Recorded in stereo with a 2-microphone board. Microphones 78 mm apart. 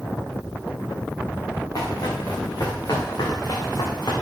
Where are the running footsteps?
50° left (ahead or behind), 5 m; by 4.1 s 65° left (ahead or behind), 4 m.